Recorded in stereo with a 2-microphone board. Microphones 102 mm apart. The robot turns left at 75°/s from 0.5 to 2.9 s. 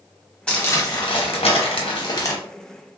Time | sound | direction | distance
0.5 | crumpling | 170° left | 0.8 m